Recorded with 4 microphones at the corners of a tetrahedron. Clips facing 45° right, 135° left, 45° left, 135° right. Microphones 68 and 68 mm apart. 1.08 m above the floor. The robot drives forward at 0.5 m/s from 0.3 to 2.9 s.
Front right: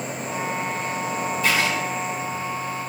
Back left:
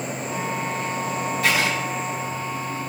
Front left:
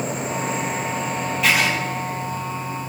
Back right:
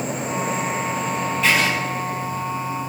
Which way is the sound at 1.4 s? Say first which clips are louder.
Even, even; 135° left.